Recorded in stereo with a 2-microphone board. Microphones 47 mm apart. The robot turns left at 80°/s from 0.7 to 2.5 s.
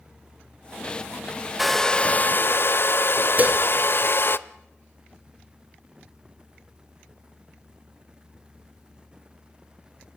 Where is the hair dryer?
175° right, 0.8 m; by 4.4 s 110° left, 0.8 m.